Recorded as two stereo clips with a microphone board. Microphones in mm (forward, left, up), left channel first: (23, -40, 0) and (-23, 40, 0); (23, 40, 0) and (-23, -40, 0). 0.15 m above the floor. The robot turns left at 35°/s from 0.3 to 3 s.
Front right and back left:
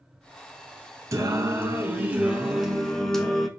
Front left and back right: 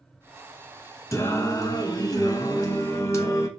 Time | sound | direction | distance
1.1 | singing | 90° left | 0.6 m